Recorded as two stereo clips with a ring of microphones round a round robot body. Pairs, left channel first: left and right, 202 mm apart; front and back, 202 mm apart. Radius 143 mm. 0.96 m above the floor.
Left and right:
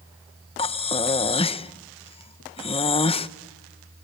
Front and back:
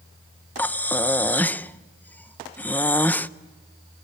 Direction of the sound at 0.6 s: 75° left.